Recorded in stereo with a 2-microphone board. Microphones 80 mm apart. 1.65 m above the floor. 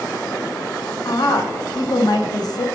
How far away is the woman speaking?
About 0.6 m.